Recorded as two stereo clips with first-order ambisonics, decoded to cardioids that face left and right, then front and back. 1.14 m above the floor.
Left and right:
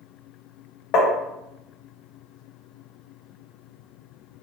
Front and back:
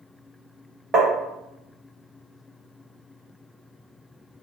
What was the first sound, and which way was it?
Tapping, 115° left.